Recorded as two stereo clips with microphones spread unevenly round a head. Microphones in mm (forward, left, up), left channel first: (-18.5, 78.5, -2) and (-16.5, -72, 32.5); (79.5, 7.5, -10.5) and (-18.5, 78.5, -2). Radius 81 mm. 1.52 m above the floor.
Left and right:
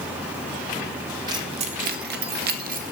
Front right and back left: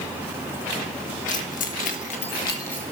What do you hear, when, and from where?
1.3 s keys jangling: 25° right, 1.6 m; by 2.9 s 120° right, 1.8 m